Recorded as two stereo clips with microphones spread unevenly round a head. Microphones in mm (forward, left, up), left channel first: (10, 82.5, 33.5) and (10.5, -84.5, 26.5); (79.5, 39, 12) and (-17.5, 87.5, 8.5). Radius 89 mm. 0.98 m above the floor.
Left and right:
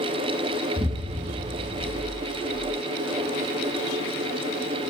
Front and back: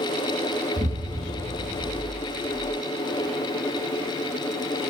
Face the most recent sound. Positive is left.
turn(degrees=-155)